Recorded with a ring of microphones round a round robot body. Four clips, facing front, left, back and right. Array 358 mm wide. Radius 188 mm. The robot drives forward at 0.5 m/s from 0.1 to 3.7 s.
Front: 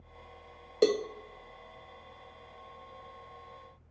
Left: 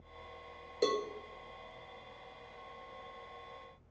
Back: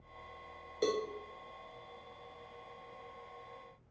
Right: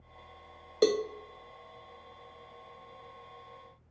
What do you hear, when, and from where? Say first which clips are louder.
0.8 s a cowbell: right 6 dB, front 7 dB; 40° right, 0.5 m; by 1.0 s 50° right, 0.5 m